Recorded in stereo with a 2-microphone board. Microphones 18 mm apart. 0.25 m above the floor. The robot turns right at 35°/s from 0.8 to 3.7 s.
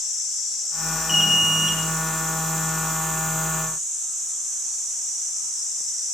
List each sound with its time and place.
1.1 s an alarm: 15° right (ahead or behind), 1.3 m; by 1.8 s 30° right (ahead or behind), 1.3 m